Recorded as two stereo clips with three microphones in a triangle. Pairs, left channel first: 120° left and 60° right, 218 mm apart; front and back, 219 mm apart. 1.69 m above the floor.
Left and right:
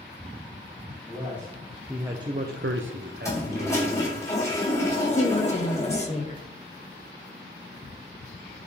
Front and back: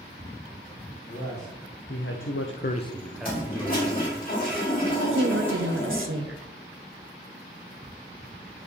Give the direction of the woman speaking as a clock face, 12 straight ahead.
6 o'clock.